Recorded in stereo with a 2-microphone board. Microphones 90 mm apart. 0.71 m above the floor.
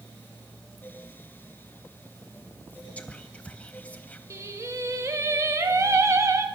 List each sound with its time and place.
3.0 s whispering: 15° left (ahead or behind), 0.5 m
4.3 s singing: 30° right (ahead or behind), 1.1 m